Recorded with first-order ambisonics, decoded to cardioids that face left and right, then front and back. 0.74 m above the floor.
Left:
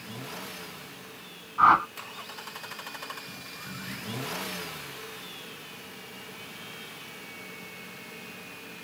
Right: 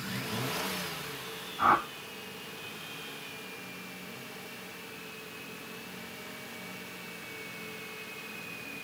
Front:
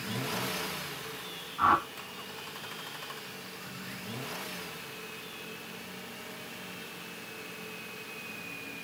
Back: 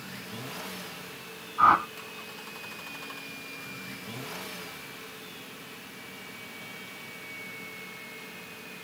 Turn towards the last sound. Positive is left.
turn(degrees=115)